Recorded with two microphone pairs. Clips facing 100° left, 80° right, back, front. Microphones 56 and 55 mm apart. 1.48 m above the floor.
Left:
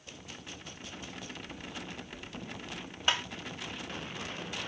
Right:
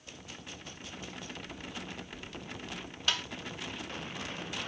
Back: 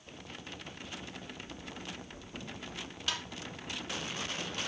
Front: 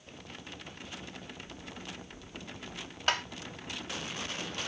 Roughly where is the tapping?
Ahead left.